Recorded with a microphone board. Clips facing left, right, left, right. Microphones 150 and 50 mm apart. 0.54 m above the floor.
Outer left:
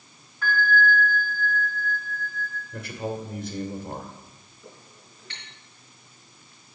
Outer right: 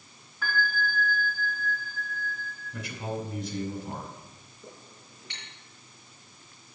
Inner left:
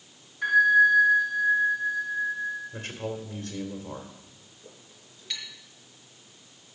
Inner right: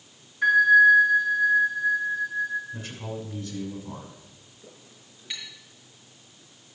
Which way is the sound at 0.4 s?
5° right (ahead or behind).